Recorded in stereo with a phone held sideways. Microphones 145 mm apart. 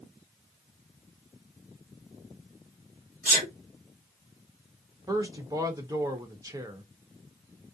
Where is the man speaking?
25° right (ahead or behind), 0.9 m.